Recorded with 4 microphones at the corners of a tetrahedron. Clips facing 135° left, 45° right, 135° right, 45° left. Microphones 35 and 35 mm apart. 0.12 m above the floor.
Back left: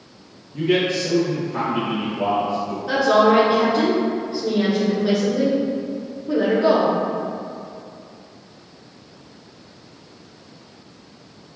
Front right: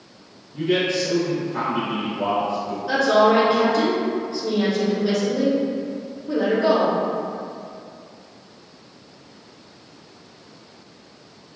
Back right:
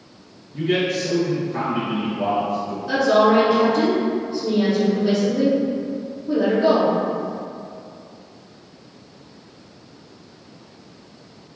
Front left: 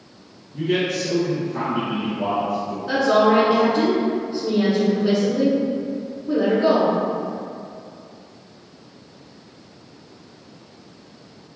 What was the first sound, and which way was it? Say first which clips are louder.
A man speaking: back left 1 dB, back right 1 dB; 165° right.